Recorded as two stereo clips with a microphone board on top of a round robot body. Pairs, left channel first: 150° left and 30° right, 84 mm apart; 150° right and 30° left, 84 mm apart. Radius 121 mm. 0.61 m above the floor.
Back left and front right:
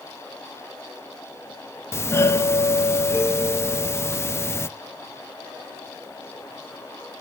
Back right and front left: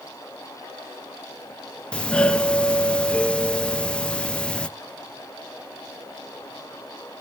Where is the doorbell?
145° left, 1.2 m.